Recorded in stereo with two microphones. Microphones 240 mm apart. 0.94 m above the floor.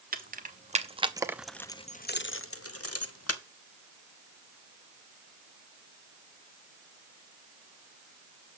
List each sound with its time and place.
0.1 s keys jangling: 40° right (ahead or behind), 1.3 m; by 3.4 s 90° left, 1.2 m